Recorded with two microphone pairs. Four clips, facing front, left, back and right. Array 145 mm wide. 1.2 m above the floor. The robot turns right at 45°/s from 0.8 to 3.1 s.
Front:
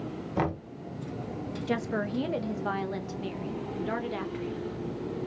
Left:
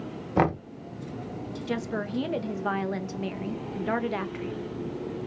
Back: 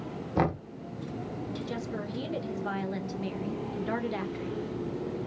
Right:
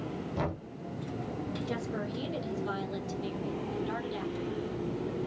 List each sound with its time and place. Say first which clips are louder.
0.4 s knocking: left 12 dB, back 2 dB; 95° left, 0.8 m
1.7 s a woman speaking: left 4 dB, front 5 dB; 25° left, 0.8 m; by 4.7 s 85° left, 0.8 m